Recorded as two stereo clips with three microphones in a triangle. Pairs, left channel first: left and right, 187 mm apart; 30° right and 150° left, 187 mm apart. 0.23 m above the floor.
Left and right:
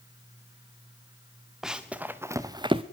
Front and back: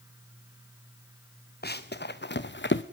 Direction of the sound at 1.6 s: 5° right.